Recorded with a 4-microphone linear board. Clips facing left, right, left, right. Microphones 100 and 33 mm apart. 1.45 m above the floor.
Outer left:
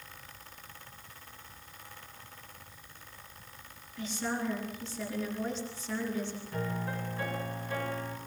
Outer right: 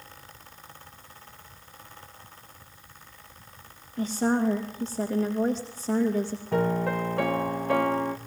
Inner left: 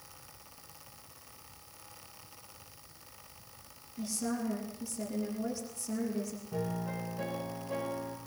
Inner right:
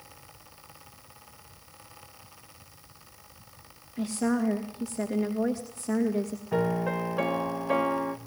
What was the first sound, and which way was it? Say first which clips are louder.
A woman speaking: outer right 10 dB, inner right 8 dB; 55° right (ahead or behind).